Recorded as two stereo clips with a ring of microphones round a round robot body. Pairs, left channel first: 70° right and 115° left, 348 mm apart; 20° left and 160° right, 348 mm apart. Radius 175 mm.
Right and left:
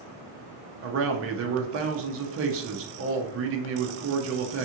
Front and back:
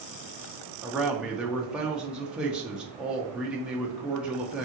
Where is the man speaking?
115° left, 0.5 m.